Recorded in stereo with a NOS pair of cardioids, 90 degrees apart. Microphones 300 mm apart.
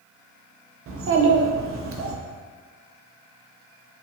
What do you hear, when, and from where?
0.9 s a child speaking: 45° right, 0.6 m